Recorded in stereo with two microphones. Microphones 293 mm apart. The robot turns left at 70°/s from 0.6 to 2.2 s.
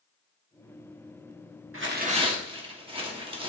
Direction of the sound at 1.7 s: 130° right.